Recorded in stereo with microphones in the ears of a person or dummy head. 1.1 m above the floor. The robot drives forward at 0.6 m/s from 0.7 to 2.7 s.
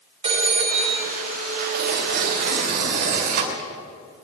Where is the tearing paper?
65° right (ahead or behind), 2.5 m; by 3.7 s 55° right (ahead or behind), 3 m.